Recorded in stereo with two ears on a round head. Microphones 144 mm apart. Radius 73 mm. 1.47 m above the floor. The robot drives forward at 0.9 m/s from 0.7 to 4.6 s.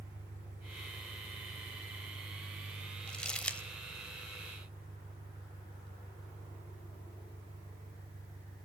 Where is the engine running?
65° right (ahead or behind), 4 m; by 8.7 s 35° right (ahead or behind), 6.5 m.